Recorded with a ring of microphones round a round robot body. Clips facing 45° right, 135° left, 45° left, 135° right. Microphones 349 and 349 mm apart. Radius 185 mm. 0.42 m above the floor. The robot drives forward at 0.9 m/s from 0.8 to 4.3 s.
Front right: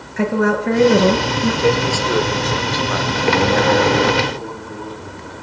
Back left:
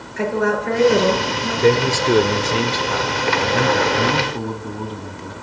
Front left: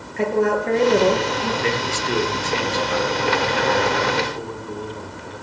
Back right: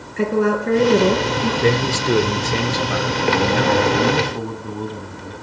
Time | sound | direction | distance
0.2 | a woman speaking | 60° right | 7 m
1.6 | a man speaking | 165° right | 1.3 m